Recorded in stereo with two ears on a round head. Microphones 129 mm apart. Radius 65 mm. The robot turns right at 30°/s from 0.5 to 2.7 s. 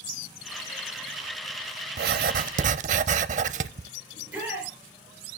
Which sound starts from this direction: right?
Writing, at 2.0 s.